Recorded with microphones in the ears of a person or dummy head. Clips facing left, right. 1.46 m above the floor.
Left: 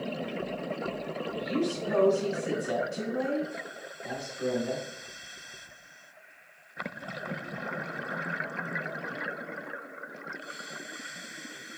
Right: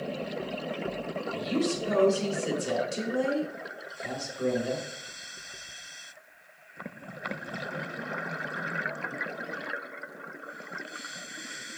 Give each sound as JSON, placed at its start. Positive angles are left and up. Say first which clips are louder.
{"t": 1.3, "sound": "a woman speaking", "louder": "right 1 dB", "side_deg": -55, "distance_m": 4.0}